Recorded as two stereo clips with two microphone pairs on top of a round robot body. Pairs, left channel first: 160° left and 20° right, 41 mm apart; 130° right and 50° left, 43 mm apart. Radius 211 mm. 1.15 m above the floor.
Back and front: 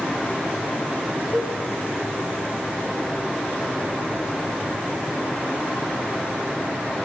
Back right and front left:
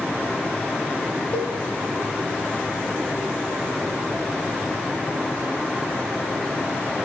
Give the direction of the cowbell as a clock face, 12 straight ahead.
3 o'clock.